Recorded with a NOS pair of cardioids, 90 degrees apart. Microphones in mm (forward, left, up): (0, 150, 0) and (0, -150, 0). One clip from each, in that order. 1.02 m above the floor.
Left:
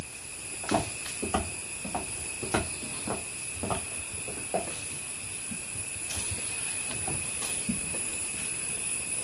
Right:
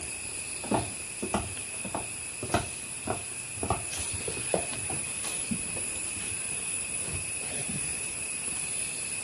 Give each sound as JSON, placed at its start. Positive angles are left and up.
{"t": 0.6, "sound": "footsteps", "azimuth_deg": -5, "distance_m": 3.0}